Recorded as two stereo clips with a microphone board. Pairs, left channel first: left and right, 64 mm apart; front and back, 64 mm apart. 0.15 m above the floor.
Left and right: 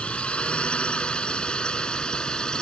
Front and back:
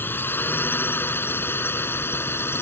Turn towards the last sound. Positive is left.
turn(degrees=20)